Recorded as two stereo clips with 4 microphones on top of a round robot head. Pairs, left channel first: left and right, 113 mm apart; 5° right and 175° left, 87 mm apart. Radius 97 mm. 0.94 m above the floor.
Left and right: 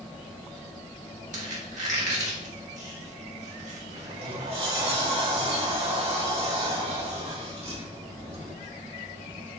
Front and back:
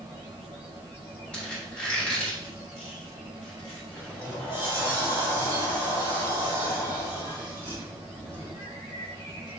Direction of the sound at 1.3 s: 85° right.